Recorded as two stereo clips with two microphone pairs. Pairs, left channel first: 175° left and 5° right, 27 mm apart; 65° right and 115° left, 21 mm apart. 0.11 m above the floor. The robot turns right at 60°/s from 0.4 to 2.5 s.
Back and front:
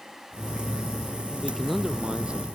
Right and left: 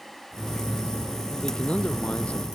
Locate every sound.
1.4 s a man speaking: 110° right; by 2.5 s 45° right